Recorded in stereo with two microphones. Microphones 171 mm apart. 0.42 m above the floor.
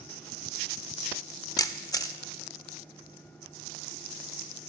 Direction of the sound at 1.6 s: 20° left (ahead or behind).